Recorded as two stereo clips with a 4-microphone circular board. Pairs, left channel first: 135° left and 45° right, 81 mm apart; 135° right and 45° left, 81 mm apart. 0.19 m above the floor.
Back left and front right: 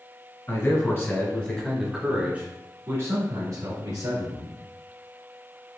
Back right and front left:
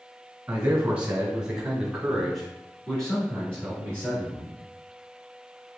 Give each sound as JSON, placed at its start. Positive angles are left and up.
{"t": 0.5, "sound": "a man speaking", "azimuth_deg": 110, "distance_m": 1.5}